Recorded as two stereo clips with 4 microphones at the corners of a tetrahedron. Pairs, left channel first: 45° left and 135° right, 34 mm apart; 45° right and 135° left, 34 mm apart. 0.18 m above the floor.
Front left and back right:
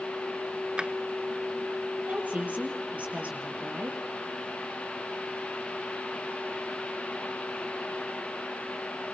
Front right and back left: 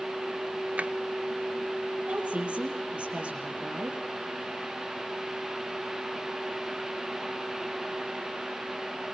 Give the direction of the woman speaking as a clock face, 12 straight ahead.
6 o'clock.